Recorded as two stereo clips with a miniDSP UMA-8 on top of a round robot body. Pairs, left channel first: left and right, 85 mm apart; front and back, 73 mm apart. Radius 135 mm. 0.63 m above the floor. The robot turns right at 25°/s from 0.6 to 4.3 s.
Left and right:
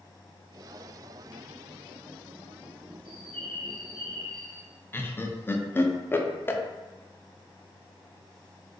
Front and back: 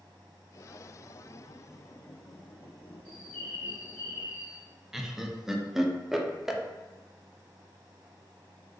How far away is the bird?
About 1.3 m.